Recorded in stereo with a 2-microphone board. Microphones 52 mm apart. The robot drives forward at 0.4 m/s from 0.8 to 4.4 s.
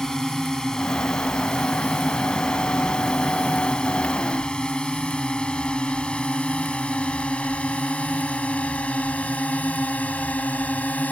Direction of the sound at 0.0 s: 10° left (ahead or behind).